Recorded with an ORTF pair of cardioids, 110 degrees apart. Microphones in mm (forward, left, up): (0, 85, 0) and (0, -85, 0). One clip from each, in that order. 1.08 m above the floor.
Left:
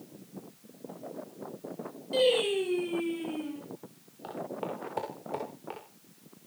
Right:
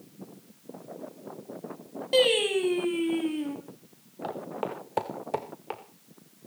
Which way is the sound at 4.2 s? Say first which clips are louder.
Right 3 dB; 35° right.